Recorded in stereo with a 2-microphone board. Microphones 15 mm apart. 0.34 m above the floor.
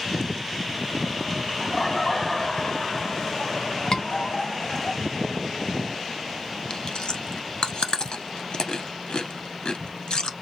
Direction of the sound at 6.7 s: 65° left (ahead or behind).